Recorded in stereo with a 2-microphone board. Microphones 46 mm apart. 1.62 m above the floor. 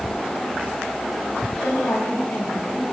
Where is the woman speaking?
75° left (ahead or behind), 7.5 m.